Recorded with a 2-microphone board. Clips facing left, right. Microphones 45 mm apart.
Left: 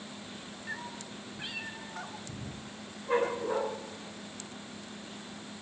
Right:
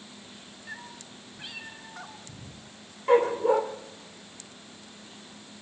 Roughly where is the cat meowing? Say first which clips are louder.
Left 2 dB; centre.